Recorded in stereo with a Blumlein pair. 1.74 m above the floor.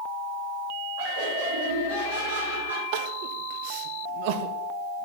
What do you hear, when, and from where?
1.0 s laughter: 50° right, 4 m; by 2.8 s 65° right, 5.5 m
2.9 s crying: 45° right, 1.6 m